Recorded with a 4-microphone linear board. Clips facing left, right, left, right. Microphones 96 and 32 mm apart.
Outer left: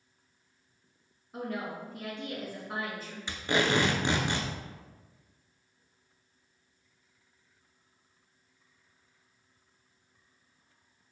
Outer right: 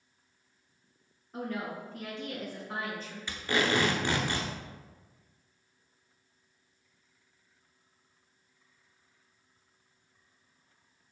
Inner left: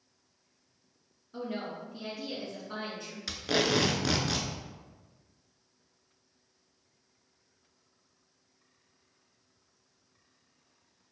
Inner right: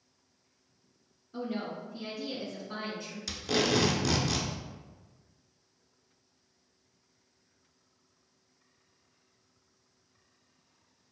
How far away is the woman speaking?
About 1.3 m.